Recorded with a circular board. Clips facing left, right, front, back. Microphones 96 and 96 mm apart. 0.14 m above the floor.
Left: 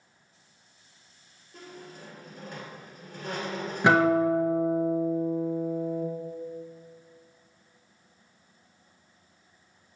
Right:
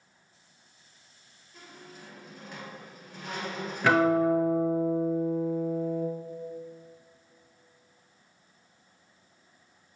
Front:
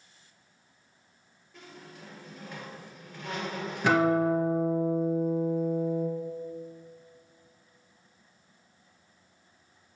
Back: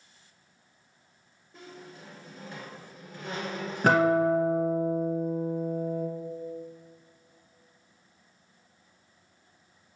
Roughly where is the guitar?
Behind left.